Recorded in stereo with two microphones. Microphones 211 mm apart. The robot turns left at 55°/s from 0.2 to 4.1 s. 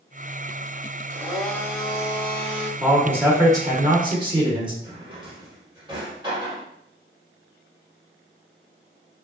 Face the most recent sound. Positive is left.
turn(degrees=-20)  # may be behind; listen again after turning